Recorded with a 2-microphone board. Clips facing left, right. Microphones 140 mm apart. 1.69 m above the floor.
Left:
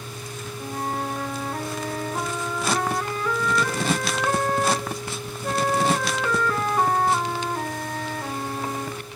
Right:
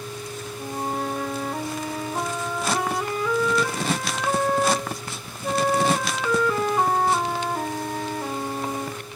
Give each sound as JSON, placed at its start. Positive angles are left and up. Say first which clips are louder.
{"t": 0.6, "sound": "a flute", "louder": "right 1 dB", "side_deg": -10, "distance_m": 1.9}